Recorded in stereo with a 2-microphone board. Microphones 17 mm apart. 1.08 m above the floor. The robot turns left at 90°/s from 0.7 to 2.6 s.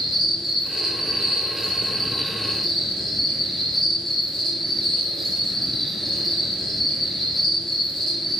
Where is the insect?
50° right, 0.8 m; by 8.4 s 135° left, 0.8 m.